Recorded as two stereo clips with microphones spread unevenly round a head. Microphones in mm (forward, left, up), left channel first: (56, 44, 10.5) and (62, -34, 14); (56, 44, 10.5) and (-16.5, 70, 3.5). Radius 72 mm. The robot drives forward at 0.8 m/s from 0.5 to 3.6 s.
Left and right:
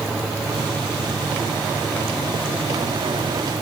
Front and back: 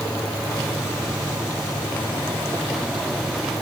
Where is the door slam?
I don't hear a door slam.